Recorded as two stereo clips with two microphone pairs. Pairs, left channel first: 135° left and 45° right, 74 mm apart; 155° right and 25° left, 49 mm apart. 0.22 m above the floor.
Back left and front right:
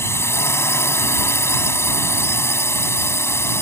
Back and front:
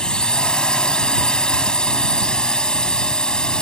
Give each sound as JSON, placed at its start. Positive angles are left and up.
{"t": 0.0, "sound": "a drone", "azimuth_deg": 145}